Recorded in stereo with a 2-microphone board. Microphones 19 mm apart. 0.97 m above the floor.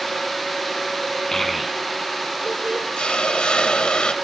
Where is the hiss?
65° left (ahead or behind), 1.4 m.